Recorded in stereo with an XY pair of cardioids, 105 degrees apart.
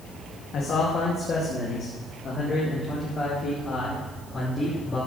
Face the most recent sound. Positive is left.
turn(degrees=30)